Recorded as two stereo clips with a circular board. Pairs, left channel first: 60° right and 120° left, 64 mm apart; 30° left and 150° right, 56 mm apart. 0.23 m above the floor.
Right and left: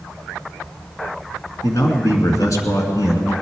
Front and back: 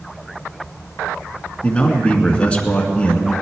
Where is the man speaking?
40° right, 2 m.